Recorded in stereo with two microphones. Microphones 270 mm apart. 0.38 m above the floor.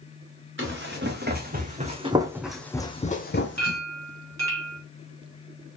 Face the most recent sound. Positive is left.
turn(degrees=-65)  # may be behind; listen again after turning